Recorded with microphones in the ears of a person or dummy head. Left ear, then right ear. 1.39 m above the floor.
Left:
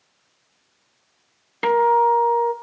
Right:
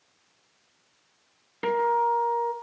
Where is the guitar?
25° left (ahead or behind), 1.5 m.